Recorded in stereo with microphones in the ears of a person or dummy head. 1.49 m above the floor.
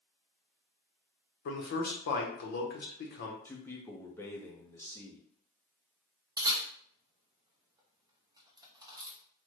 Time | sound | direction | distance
1.4 | a man speaking | 55° left (ahead or behind) | 0.8 m
3.5 | a man speaking | 5° left (ahead or behind) | 0.6 m
6.4 | a camera shutter | 25° right (ahead or behind) | 0.7 m